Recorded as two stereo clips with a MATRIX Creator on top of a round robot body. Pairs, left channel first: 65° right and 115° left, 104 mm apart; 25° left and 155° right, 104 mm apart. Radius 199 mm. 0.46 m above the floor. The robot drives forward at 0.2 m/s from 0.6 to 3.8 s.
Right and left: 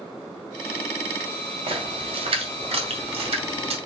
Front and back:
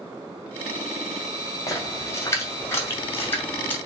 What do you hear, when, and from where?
1.7 s a splash: 85° left, 2 m; by 3.8 s 95° left, 2 m